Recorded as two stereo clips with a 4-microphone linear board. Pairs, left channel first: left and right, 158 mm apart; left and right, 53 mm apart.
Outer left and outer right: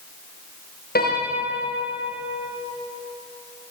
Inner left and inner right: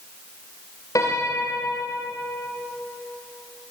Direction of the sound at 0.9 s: 90° left.